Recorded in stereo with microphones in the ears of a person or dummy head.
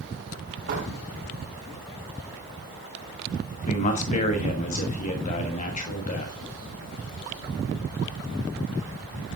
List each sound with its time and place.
0.7 s a door slam: 70° right (ahead or behind), 4.5 m
3.7 s a man speaking: 40° left (ahead or behind), 1.5 m